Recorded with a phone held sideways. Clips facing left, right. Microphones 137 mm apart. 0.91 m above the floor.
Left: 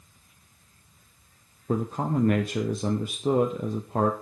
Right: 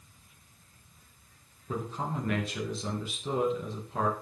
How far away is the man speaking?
About 0.7 m.